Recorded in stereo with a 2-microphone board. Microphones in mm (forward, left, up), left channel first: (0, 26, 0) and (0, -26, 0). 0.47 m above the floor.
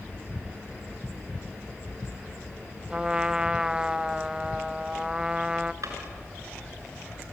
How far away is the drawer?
About 3.5 m.